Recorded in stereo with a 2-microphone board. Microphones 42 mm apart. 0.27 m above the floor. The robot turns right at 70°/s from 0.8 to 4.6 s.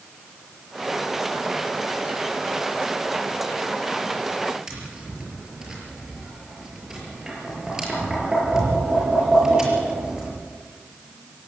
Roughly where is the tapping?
Centre.